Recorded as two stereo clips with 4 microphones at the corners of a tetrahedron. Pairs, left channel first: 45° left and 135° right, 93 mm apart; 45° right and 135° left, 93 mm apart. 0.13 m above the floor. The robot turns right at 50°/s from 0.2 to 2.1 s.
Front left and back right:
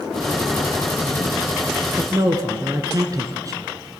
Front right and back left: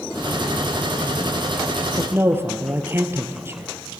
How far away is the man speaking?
About 2 m.